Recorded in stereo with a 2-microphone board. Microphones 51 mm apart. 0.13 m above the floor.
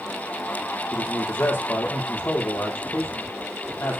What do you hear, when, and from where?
0.9 s a man speaking: 55° left (ahead or behind), 4 m